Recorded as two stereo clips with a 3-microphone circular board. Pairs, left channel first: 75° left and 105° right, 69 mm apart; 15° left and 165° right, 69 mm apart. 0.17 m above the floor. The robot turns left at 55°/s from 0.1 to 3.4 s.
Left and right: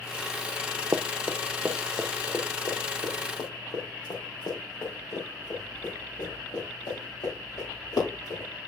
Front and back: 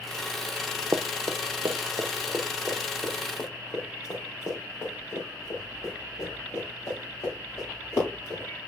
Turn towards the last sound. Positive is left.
turn(degrees=60)